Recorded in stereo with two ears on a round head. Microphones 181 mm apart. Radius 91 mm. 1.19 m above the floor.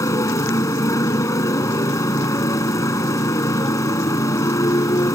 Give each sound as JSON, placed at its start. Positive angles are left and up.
{"t": 0.0, "sound": "a motorcycle", "side_deg": 15}